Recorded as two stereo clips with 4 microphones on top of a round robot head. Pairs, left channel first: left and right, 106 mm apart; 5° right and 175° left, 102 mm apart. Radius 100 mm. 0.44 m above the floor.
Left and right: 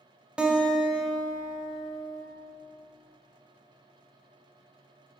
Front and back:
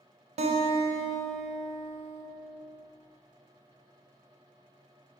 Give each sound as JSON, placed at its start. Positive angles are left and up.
{"t": 0.4, "sound": "a guitar", "azimuth_deg": -170, "distance_m": 0.9}